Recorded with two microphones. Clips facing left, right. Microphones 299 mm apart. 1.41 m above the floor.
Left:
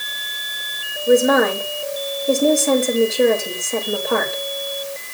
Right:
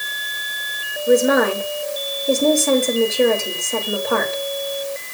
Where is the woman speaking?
Centre (ahead or behind), 3 m.